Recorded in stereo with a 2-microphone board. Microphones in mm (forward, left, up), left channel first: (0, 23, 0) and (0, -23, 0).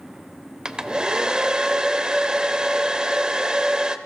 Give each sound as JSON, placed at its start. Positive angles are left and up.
{"t": 0.7, "sound": "a hair dryer", "side_deg": -15, "distance_m": 0.7}